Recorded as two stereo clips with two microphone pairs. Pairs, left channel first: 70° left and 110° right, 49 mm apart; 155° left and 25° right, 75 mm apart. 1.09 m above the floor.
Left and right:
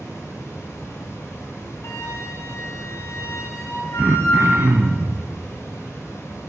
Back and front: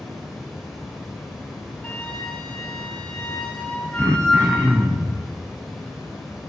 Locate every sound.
0.0 s running water: 60° left, 4.5 m
1.8 s a flute: 80° left, 3 m
4.0 s throat clearing: 80° right, 1.4 m